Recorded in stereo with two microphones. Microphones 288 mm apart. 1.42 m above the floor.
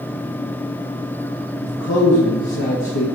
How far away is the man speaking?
About 1.4 m.